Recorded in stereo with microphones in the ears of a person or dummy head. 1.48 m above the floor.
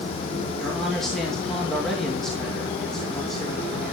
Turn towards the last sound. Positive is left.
turn(degrees=0)  # may be behind; listen again after turning